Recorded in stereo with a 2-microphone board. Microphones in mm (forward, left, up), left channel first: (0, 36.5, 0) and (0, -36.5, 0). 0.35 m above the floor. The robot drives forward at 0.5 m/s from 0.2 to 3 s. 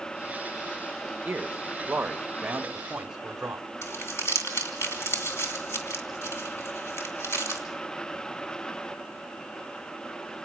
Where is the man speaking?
20° right (ahead or behind), 1.0 m; by 3.6 s 10° right (ahead or behind), 1.4 m.